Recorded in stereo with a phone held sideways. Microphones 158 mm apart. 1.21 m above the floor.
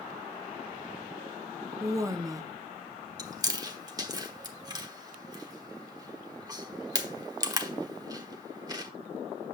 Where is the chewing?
25° right (ahead or behind), 0.9 m.